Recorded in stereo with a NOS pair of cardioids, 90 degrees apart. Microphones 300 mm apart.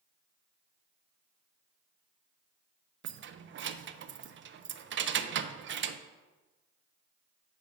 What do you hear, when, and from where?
3.0 s keys jangling: 40° right, 0.5 m